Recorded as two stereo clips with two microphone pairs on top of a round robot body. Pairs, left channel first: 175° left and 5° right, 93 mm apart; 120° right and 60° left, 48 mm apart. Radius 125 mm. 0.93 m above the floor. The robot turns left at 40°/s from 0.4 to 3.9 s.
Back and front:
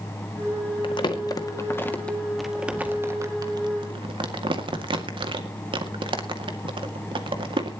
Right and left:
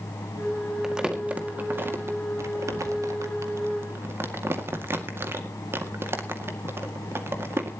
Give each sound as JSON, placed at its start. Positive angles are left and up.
{"t": 0.8, "sound": "crumpling", "azimuth_deg": 145, "distance_m": 2.0}